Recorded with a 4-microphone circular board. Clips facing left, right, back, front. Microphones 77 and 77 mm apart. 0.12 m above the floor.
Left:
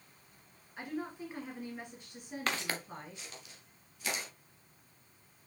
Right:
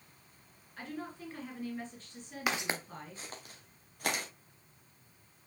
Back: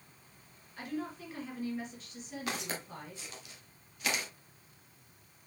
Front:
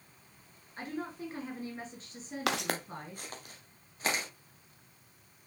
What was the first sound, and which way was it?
A woman speaking, 25° left.